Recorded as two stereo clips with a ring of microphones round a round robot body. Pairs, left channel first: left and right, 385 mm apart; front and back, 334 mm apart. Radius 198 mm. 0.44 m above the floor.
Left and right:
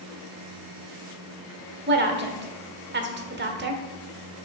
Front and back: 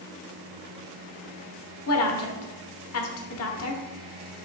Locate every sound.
1.9 s a woman speaking: 35° right, 1.1 m